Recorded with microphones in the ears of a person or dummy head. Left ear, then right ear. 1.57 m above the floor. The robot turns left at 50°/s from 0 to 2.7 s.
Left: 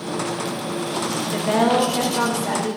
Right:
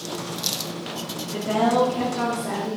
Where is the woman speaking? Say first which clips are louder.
Left 2 dB; 110° left, 0.6 m; by 2.8 s 45° left, 0.6 m.